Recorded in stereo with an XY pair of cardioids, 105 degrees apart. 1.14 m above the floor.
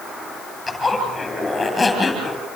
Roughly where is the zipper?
Ahead.